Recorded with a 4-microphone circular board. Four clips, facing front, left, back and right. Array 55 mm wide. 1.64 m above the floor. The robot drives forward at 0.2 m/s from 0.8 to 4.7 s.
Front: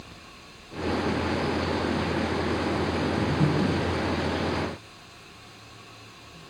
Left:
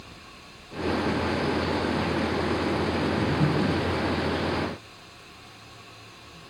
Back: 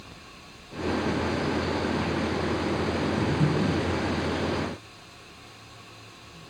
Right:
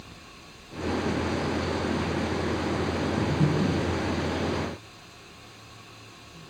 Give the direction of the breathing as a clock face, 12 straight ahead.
12 o'clock.